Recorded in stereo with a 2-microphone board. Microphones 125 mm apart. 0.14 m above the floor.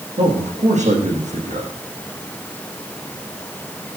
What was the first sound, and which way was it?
A man speaking, 75° right (ahead or behind).